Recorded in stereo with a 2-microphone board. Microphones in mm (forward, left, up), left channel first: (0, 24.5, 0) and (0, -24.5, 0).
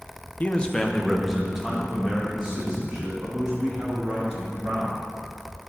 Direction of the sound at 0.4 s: 35° left (ahead or behind).